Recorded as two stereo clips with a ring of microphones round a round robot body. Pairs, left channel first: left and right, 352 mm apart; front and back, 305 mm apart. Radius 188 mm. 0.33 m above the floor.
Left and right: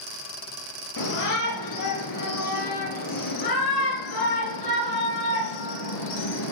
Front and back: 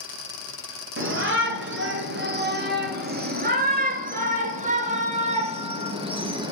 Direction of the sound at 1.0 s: 130° left.